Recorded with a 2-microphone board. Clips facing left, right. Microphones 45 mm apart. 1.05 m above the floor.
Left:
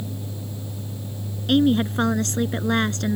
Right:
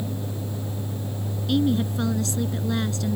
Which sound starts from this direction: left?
A woman speaking, at 1.5 s.